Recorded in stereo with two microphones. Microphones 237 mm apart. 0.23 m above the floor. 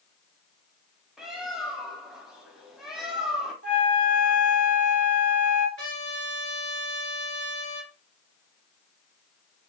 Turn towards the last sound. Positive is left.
turn(degrees=55)  # may be behind; listen again after turning